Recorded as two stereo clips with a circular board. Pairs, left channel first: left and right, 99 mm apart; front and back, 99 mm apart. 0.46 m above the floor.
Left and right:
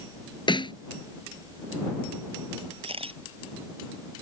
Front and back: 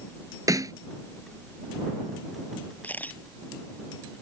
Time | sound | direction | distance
0.5 | a snare drum | 125° left | ?
2.8 | a camera shutter | 75° right | ?